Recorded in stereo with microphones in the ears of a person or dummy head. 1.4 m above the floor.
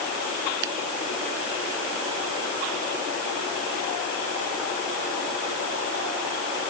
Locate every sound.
0.6 s a finger snap: 70° right (ahead or behind)